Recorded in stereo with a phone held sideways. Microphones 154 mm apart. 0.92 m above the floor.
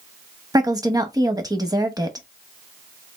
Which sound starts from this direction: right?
A woman speaking, at 0.5 s.